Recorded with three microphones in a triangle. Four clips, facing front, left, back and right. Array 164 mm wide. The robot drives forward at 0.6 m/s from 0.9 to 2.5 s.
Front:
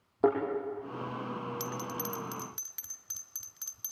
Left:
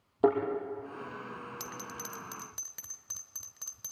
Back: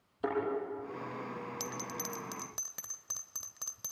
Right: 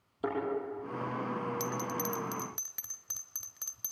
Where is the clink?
No clink in this recording.